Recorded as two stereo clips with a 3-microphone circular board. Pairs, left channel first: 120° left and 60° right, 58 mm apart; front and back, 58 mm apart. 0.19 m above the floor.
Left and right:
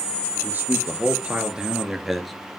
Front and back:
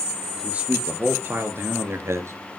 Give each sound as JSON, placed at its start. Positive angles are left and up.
{"t": 0.4, "sound": "a man speaking", "azimuth_deg": -115, "distance_m": 3.5}